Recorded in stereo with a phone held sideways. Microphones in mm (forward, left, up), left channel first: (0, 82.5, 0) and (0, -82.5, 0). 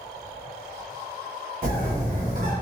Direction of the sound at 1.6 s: 60° right (ahead or behind).